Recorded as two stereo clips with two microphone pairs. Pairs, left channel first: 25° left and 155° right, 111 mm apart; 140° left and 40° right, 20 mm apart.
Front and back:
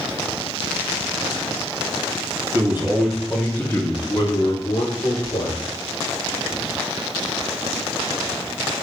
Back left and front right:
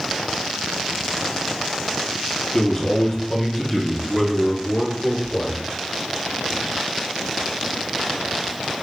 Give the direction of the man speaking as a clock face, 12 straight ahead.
7 o'clock.